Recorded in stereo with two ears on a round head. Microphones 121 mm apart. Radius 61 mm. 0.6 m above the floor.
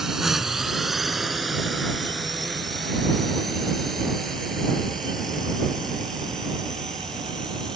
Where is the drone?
Centre (ahead or behind); by 7.8 s 5° left (ahead or behind).